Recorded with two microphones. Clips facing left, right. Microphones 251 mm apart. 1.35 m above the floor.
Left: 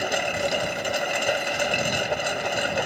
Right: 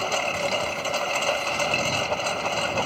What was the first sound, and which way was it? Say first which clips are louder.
A lawn mower: left 1 dB; 15° left (ahead or behind).